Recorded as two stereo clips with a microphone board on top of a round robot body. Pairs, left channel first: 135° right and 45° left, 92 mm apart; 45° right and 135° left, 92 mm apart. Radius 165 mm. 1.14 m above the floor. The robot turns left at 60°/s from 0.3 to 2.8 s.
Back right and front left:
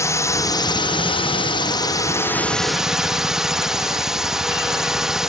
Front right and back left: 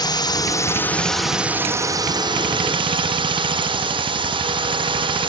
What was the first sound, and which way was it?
A drone, 80° right.